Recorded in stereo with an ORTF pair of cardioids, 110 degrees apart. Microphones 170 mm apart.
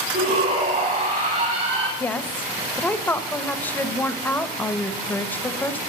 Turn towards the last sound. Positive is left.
turn(degrees=10)